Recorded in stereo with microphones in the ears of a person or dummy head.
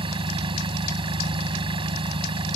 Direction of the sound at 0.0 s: 30° right (ahead or behind).